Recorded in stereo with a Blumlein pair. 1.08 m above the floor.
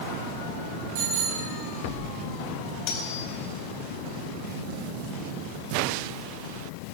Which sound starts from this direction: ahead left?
Cutlery clinking, at 2.9 s.